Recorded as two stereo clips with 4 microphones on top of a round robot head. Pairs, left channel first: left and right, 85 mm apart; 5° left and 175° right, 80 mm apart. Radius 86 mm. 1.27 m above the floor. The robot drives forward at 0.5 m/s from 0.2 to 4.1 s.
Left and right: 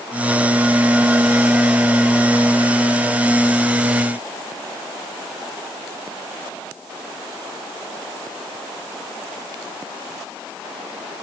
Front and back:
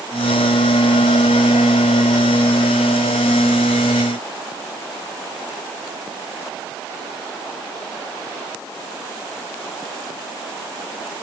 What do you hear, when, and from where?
Only background noise.